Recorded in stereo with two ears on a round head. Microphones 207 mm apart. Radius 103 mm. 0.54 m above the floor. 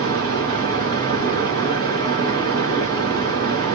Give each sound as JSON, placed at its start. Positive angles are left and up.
{"t": 0.0, "sound": "running water", "side_deg": -50, "distance_m": 3.0}